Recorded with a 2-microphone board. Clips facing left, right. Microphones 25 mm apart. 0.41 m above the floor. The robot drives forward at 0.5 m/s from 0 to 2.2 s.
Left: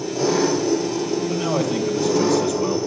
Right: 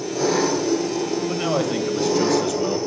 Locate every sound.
0.0 s an engine running: 25° right (ahead or behind), 4 m; by 2.9 s 20° right (ahead or behind), 5 m
1.3 s a man speaking: 30° right (ahead or behind), 1.8 m; by 2.8 s 25° right (ahead or behind), 2 m